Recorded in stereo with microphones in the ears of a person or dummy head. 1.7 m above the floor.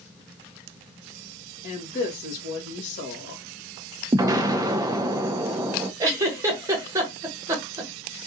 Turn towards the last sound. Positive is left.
turn(degrees=-20)  # may be behind; listen again after turning